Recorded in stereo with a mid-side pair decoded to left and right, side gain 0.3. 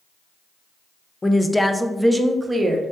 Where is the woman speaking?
30° left, 0.6 m; by 2.9 s 50° right, 0.8 m.